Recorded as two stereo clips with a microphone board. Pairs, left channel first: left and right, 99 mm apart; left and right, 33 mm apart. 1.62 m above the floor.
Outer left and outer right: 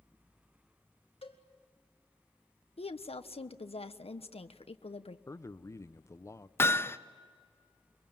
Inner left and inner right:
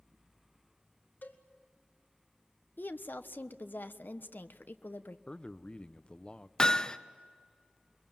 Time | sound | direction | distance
1.2 | a cowbell | 85° left | 2 m
2.8 | a woman speaking | 80° left | 1.0 m
5.3 | a man speaking | 30° left (ahead or behind) | 0.6 m
6.6 | hammering | 25° left (ahead or behind) | 0.7 m